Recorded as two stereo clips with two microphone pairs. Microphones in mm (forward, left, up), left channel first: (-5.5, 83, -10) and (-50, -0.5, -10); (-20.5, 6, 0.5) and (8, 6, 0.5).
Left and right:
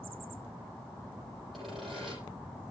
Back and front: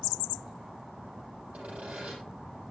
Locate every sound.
1.5 s sawing: 30° right, 9.5 m